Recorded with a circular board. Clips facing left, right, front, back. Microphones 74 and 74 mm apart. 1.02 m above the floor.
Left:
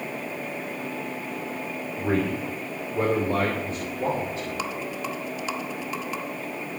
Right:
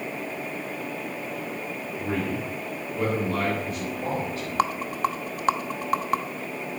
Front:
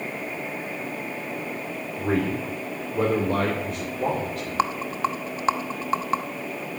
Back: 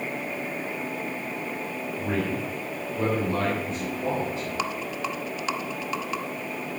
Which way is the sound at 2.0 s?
50° left.